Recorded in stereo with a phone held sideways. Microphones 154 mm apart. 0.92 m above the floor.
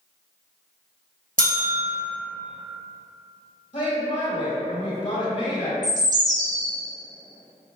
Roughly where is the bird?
Right.